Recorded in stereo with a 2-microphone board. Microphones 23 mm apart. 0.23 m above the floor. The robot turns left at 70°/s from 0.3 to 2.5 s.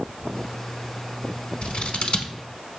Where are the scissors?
55° left (ahead or behind), 0.9 m.